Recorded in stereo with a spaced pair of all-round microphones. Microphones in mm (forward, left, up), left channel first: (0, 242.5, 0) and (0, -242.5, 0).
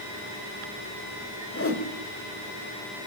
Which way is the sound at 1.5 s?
25° left (ahead or behind).